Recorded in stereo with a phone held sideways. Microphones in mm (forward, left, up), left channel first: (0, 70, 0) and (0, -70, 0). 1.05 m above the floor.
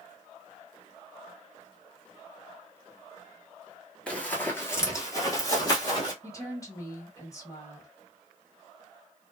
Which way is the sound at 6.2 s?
25° left (ahead or behind).